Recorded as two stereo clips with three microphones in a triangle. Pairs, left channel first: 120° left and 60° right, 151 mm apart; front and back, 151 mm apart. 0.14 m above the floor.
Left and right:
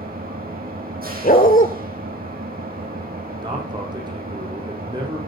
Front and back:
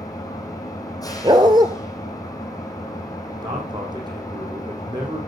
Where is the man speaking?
120° right, 5.5 m.